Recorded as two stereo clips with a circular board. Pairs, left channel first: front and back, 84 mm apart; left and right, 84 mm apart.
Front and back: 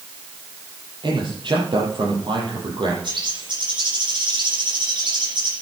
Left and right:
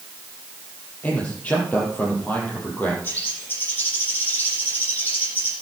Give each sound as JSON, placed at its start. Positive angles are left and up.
{"t": 1.0, "sound": "a man speaking", "azimuth_deg": 160, "distance_m": 6.0}
{"t": 3.0, "sound": "a bird", "azimuth_deg": 160, "distance_m": 9.0}